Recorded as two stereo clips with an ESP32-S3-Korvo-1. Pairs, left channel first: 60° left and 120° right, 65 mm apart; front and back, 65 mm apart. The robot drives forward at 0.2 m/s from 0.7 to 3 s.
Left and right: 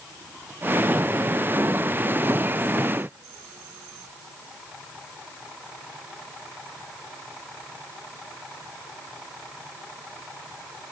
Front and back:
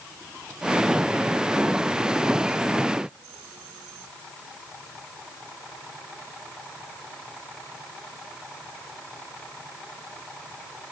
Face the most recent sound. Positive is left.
No sound to turn to.